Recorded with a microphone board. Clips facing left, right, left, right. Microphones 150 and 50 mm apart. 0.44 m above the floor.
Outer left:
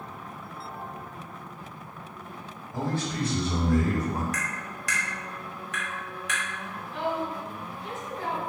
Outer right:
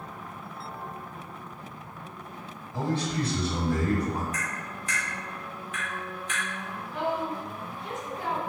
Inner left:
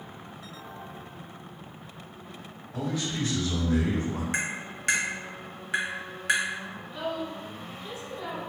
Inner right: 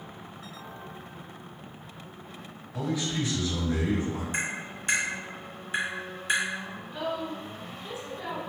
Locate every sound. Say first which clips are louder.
2.7 s a man speaking: outer right 1 dB, inner right 1 dB; 45° left (ahead or behind), 1.9 m
4.3 s tapping: even, inner left 1 dB; 75° left (ahead or behind), 0.9 m
6.9 s a woman speaking: even, inner right 1 dB; 20° right (ahead or behind), 1.4 m